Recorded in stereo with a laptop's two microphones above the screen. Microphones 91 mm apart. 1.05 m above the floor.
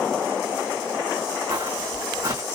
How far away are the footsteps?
About 2.5 m.